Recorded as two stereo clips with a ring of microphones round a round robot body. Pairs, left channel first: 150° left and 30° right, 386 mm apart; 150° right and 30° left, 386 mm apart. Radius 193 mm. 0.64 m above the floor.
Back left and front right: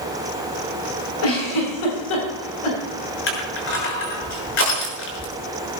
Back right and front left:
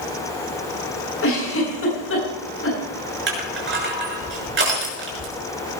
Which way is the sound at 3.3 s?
90° left.